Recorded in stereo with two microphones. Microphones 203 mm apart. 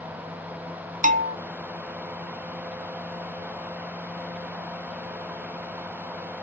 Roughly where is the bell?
Right.